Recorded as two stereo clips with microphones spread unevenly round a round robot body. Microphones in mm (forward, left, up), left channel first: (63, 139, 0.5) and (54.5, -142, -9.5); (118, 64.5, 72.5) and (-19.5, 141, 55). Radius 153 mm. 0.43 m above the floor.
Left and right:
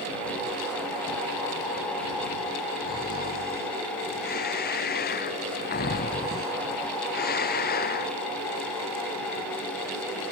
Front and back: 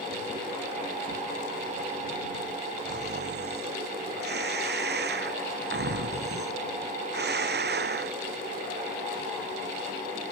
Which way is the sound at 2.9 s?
150° left.